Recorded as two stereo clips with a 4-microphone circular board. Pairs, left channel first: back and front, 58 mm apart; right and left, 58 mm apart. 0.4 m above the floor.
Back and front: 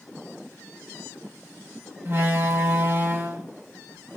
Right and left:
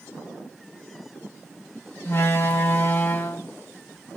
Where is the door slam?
50° right, 1.7 m.